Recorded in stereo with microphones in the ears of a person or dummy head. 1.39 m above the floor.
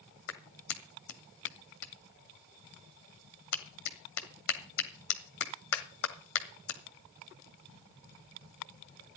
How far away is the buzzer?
I don't hear a buzzer.